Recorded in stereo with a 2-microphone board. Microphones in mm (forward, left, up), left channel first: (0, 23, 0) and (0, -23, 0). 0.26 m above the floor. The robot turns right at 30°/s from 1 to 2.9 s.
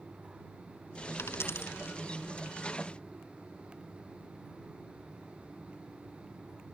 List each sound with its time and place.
1.2 s a dropped coin: 65° left (ahead or behind); by 2.0 s 70° left (ahead or behind)